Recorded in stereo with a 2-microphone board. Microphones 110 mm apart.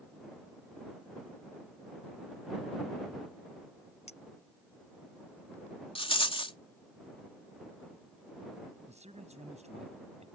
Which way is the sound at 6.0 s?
55° left (ahead or behind).